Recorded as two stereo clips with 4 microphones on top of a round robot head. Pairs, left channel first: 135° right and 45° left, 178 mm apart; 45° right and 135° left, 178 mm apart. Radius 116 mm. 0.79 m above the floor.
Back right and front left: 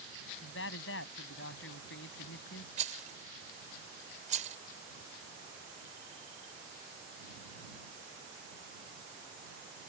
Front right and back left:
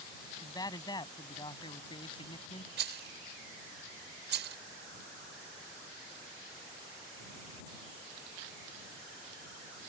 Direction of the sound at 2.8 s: 100° left.